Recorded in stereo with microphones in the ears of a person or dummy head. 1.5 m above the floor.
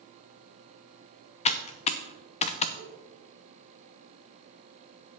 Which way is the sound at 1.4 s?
35° left (ahead or behind).